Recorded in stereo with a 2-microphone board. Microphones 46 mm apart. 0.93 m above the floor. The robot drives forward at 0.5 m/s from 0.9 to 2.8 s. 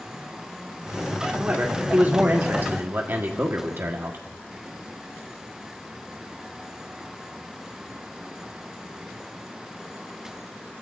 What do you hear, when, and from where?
1.4 s a man speaking: 35° right (ahead or behind), 2.0 m; by 4.2 s 55° right (ahead or behind), 1.5 m